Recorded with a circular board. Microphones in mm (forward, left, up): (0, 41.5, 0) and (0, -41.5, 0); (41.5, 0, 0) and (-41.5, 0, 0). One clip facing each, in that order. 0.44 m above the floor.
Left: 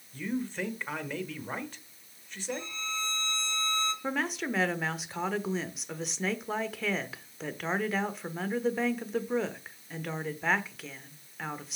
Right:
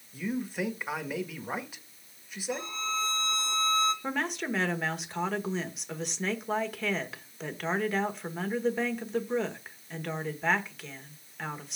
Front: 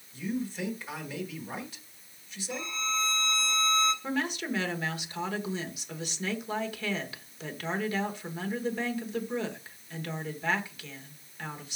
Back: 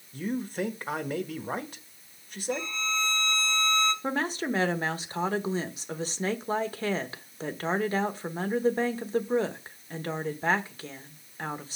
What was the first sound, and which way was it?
A man speaking, 170° right.